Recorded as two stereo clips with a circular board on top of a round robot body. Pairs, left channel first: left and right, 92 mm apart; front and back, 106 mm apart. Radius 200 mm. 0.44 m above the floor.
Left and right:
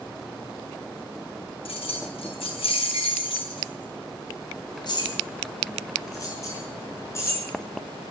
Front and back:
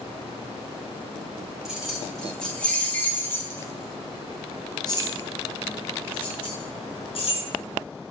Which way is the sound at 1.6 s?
95° left.